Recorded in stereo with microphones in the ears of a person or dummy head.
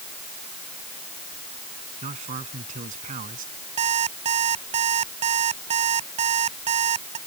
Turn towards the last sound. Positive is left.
turn(degrees=-40)  # may be behind; listen again after turning